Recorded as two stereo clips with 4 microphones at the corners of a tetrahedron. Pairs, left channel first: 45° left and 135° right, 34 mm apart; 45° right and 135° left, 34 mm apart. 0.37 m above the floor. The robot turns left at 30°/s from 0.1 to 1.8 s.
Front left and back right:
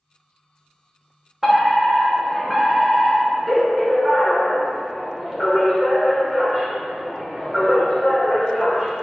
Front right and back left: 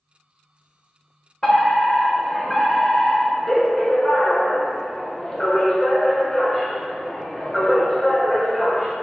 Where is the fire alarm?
65° right, 1.8 m; by 8.9 s 80° right, 1.8 m.